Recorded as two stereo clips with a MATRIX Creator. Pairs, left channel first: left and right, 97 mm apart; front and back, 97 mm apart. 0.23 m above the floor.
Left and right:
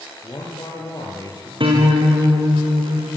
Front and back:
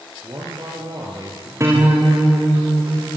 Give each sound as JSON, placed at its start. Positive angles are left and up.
{"t": 0.2, "sound": "a man speaking", "azimuth_deg": 140, "distance_m": 5.0}
{"t": 1.6, "sound": "a guitar", "azimuth_deg": -120, "distance_m": 5.0}